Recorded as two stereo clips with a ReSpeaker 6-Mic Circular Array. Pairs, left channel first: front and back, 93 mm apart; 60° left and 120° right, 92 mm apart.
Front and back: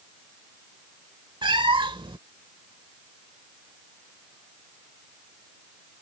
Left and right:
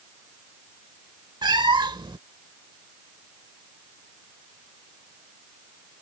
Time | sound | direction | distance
1.4 | a cat meowing | 155° right | ?